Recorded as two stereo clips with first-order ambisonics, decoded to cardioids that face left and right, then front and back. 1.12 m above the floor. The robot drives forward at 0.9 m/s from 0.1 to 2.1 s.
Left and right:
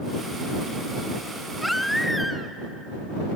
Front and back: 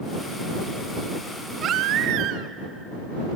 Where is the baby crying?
Straight behind, 0.5 m.